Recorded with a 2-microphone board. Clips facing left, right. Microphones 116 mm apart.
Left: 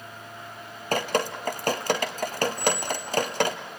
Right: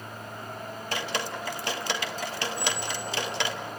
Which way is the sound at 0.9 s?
45° left (ahead or behind).